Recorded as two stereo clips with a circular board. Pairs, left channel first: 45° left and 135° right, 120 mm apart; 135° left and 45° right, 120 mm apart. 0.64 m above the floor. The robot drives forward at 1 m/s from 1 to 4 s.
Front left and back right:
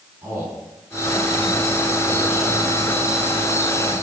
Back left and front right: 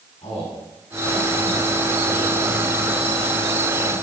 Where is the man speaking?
160° left, 7 m; by 4.0 s 165° left, 10 m.